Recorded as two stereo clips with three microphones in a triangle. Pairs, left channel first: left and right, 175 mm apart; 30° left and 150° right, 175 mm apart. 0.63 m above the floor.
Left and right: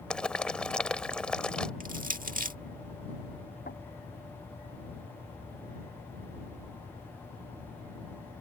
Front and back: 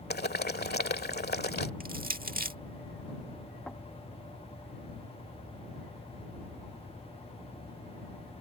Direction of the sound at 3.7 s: 115° left.